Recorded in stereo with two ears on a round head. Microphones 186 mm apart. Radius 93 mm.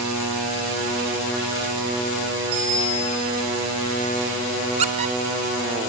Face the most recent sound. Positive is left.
turn(degrees=-30)  # may be behind; listen again after turning